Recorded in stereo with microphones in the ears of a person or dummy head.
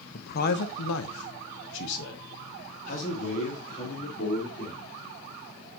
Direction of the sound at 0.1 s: 45° left (ahead or behind).